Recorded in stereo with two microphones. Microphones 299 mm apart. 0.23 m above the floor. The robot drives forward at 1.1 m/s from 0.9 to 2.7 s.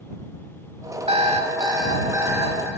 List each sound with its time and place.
1.1 s an alarm clock: 20° right (ahead or behind), 0.7 m; by 2.7 s 5° right (ahead or behind), 2.0 m